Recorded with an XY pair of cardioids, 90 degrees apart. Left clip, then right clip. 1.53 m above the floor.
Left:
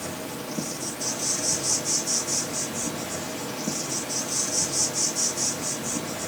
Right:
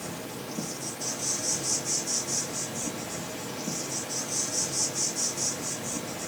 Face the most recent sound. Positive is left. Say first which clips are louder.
# left 4 dB
turn(degrees=35)